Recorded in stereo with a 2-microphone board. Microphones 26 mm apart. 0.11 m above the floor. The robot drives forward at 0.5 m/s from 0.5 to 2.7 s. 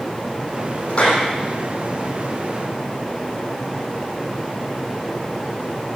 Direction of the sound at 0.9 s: 35° left (ahead or behind).